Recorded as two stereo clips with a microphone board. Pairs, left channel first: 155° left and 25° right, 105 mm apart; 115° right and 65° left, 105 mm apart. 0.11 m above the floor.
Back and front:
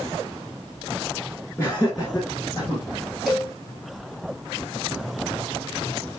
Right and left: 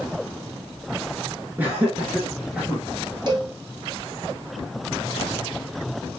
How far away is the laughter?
About 1.8 m.